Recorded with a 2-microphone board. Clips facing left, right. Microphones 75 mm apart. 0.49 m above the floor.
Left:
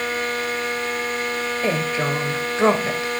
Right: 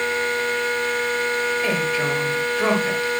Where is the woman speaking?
25° left (ahead or behind), 2.5 m.